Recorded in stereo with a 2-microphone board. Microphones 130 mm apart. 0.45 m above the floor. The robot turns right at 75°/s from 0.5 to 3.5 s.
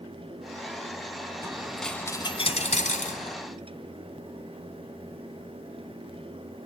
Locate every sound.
1.4 s a dropped coin: 25° right, 1.8 m; by 3.4 s 120° left, 1.8 m